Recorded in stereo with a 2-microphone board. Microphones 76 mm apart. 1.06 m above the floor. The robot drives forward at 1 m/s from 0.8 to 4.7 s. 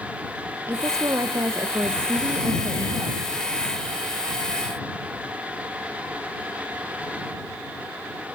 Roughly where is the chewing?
I don't hear chewing.